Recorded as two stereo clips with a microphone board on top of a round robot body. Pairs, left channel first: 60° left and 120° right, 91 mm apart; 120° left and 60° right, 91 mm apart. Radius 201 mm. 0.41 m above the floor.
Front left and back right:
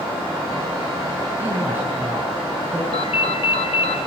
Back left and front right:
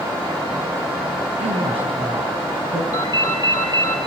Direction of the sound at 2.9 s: 65° left.